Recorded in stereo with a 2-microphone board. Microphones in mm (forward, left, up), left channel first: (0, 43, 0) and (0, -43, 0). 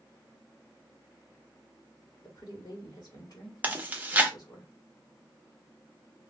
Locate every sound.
2.2 s a woman speaking: 50° left (ahead or behind), 1.5 m
3.6 s chewing: 20° right (ahead or behind), 0.6 m